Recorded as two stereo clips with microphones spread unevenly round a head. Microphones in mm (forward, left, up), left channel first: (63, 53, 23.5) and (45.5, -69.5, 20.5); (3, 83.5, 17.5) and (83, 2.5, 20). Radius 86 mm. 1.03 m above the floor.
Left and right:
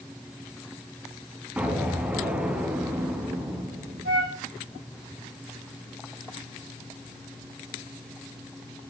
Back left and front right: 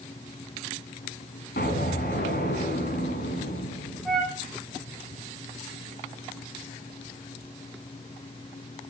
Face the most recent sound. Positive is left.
turn(degrees=-135)